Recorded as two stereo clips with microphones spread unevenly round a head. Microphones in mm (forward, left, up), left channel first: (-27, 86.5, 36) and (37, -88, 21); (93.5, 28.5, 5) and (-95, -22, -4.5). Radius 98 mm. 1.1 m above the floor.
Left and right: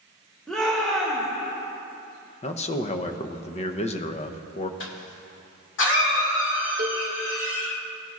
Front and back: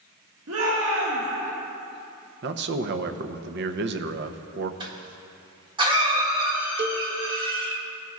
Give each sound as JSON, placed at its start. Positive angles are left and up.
{"t": 0.5, "sound": "a shout", "azimuth_deg": -160, "distance_m": 1.5}
{"t": 2.4, "sound": "a man speaking", "azimuth_deg": 170, "distance_m": 0.6}
{"t": 4.8, "sound": "a cough", "azimuth_deg": 130, "distance_m": 1.8}
{"t": 6.8, "sound": "a cowbell", "azimuth_deg": -130, "distance_m": 0.6}